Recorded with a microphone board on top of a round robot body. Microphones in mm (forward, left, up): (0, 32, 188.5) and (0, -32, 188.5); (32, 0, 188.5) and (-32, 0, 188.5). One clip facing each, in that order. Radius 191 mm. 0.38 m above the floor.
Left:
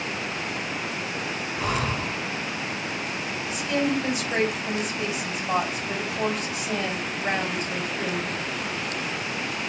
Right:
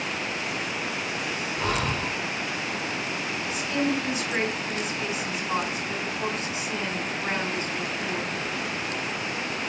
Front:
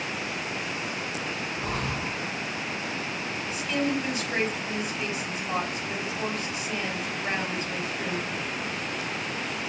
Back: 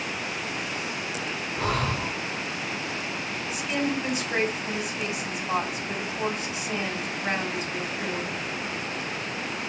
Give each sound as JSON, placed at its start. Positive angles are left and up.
{"t": 1.6, "sound": "breathing", "azimuth_deg": 175, "distance_m": 0.7}
{"t": 3.5, "sound": "a woman speaking", "azimuth_deg": 100, "distance_m": 3.0}